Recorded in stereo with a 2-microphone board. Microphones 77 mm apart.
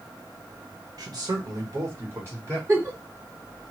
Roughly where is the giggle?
Right.